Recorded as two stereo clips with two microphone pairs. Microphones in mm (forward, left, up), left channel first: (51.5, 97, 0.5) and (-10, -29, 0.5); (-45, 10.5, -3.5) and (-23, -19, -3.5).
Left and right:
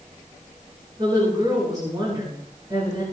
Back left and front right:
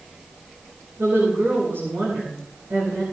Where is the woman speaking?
50° right, 10 m.